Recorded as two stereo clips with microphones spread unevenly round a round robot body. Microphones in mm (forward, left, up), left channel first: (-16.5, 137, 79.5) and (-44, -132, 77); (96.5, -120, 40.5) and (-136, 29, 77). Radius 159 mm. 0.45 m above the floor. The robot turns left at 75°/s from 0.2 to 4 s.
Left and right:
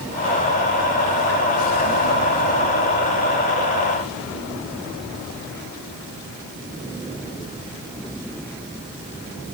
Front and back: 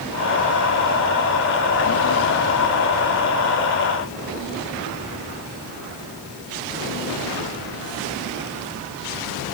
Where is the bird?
No bird in this recording.